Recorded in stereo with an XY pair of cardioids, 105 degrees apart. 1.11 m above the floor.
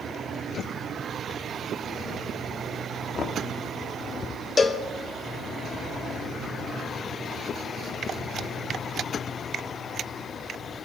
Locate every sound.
3.1 s knocking: 55° left, 1.6 m
4.6 s a cowbell: 35° left, 1.5 m